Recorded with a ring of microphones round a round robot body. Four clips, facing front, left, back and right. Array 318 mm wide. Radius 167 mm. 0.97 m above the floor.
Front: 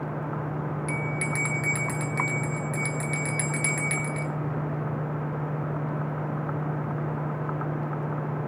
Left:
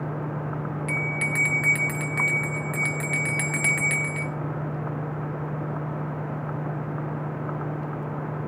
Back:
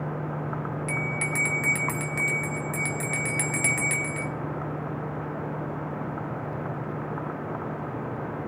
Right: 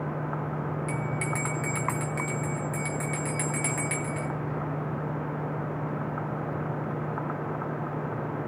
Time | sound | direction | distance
0.9 | a bell | 105° left | 1.0 m